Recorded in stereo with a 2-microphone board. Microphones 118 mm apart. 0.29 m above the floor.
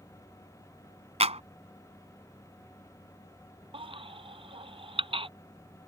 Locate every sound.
1.2 s a clap: 65° right (ahead or behind)
3.7 s a baby crying: 50° right (ahead or behind)